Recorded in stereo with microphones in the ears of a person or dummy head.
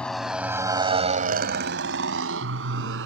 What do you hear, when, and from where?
0.0 s a motorcycle: 10° left (ahead or behind); by 3.1 s 80° right